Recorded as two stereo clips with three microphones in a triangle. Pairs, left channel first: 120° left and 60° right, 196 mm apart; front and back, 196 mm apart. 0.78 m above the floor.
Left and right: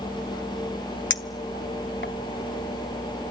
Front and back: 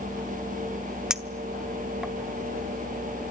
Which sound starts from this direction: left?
A clink, at 1.1 s.